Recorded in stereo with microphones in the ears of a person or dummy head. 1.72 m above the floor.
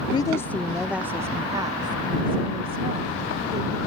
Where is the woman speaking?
35° left (ahead or behind); by 3.8 s 30° right (ahead or behind).